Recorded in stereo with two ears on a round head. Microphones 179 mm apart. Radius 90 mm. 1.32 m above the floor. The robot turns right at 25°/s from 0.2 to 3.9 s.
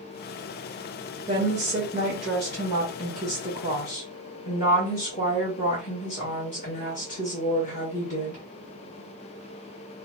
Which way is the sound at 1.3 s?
20° right.